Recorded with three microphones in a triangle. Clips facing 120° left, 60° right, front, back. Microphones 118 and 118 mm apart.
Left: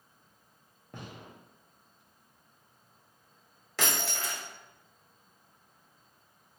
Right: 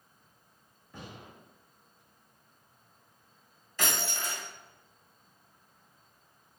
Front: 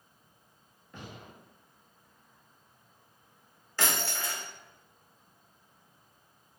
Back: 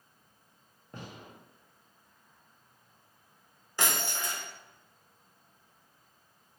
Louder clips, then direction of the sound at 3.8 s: Left 1 dB, even; 105° left.